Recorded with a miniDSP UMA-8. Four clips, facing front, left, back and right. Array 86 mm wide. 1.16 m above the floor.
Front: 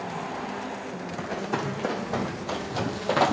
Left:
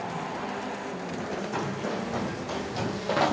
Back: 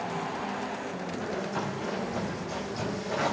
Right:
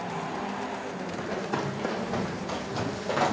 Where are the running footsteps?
25° right, 3.5 m; by 3.3 s 15° left, 2 m.